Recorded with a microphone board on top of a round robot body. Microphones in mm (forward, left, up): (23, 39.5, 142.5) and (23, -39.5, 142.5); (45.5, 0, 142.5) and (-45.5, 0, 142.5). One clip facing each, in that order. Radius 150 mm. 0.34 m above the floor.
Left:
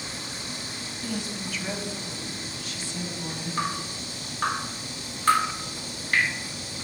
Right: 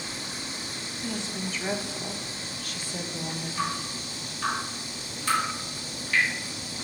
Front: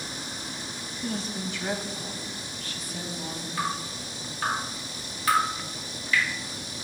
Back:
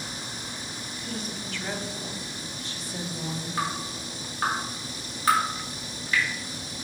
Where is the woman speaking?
25° right, 1.0 m; by 3.5 s 130° right, 1.7 m.